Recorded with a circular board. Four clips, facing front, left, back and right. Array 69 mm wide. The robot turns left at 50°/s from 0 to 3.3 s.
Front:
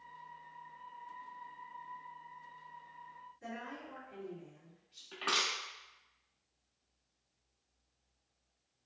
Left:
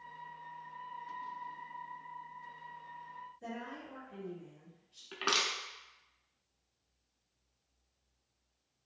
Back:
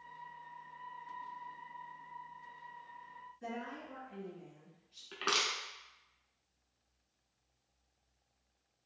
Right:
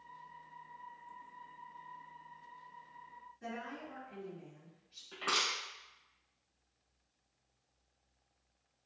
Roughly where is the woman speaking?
Behind right.